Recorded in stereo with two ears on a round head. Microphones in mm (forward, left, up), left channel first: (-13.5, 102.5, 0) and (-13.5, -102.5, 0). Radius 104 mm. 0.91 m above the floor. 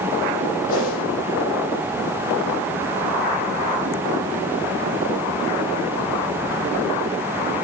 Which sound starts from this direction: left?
A whoosh, at 0.7 s.